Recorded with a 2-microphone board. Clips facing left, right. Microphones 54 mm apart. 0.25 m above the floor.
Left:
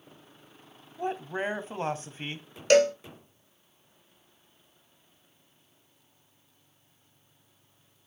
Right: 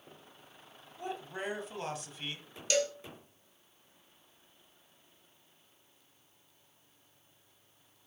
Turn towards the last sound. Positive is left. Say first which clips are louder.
# left 11 dB
turn(degrees=55)  # may be behind; listen again after turning